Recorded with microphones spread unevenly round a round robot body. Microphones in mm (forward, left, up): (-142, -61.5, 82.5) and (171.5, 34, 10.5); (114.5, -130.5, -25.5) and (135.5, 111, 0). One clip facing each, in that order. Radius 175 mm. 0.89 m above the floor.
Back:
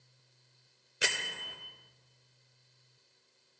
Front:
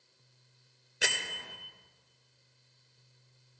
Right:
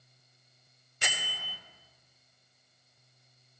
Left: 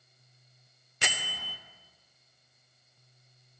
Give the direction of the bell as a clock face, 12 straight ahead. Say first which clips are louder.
Front 1 dB, left 2 dB; 9 o'clock.